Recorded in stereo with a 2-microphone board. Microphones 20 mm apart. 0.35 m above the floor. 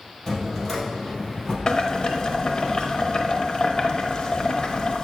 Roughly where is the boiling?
Left.